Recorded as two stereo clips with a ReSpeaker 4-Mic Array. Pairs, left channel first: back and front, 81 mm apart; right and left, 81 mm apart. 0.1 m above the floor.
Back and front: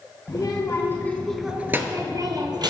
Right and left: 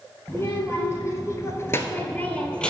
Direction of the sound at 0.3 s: 150° right.